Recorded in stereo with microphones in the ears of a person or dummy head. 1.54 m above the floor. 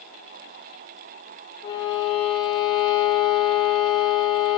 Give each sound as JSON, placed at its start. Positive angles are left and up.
{"t": 1.6, "sound": "a violin", "side_deg": 55, "distance_m": 2.0}